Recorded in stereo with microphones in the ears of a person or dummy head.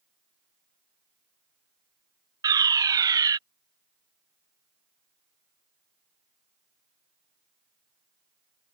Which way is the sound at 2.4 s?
10° right (ahead or behind).